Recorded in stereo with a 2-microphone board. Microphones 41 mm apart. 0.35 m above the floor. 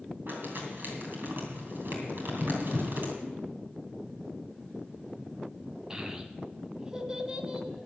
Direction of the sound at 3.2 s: 50° right (ahead or behind).